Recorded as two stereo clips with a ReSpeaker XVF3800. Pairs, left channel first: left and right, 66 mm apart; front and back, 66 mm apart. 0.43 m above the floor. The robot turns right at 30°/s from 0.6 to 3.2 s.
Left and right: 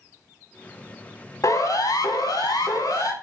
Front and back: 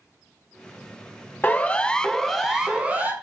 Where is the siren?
60° left, 3 m; by 3.1 s 120° left, 4 m.